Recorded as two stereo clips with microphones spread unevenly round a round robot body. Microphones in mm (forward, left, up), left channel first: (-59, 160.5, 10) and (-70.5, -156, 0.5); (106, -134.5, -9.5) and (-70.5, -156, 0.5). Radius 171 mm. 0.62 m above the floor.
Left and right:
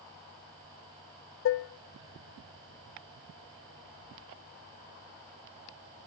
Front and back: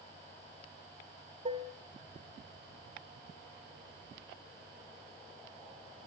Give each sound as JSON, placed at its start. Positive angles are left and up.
{"t": 1.4, "sound": "dishes clattering", "azimuth_deg": 125, "distance_m": 0.6}